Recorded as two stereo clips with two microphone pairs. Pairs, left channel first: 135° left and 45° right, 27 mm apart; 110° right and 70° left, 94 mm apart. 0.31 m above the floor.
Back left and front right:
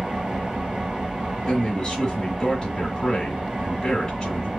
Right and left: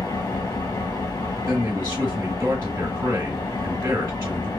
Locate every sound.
0.0 s an engine running: 95° right, 1.6 m
1.5 s a man speaking: 95° left, 1.0 m